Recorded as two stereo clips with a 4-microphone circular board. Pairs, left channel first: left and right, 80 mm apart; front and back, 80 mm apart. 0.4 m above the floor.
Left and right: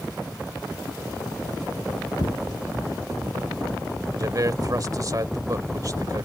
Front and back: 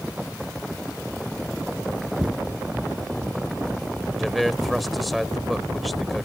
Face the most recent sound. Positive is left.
turn(degrees=-90)